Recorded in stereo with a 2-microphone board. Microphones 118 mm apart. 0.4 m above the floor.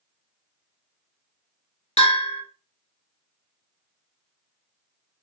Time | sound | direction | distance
2.0 | a bell | 75° left (ahead or behind) | 0.9 m